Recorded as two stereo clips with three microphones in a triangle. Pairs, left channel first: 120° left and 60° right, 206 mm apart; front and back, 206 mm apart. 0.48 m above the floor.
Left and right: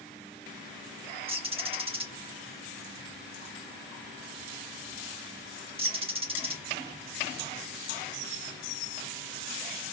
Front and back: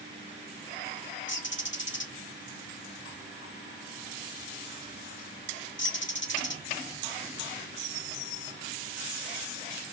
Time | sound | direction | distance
1.3 | a bird | straight ahead | 0.8 m